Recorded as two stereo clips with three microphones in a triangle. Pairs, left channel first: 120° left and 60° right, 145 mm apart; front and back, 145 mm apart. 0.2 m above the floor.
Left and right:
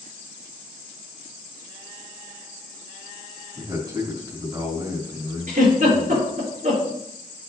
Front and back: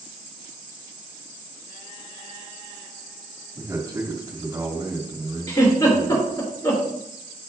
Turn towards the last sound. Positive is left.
turn(degrees=-60)